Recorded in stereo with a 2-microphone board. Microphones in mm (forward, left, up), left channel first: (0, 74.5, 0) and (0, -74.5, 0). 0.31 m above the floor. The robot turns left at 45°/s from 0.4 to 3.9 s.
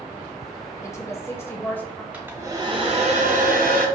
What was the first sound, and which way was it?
A woman speaking, 20° left (ahead or behind).